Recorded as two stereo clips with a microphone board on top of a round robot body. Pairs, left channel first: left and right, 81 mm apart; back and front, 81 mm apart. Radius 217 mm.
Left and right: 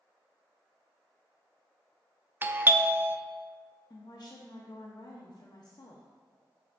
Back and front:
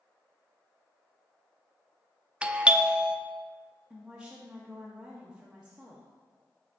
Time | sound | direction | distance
2.4 | a doorbell | 60° right | 0.5 m
3.9 | a woman speaking | 80° left | 0.7 m